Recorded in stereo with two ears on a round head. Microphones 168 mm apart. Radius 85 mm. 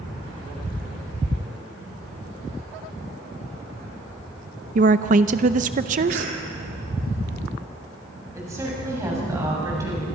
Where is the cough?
60° right (ahead or behind), 3 m.